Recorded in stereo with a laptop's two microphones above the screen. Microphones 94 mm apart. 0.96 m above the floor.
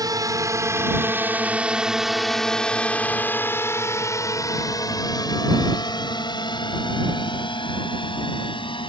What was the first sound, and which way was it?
A drone, 40° right (ahead or behind).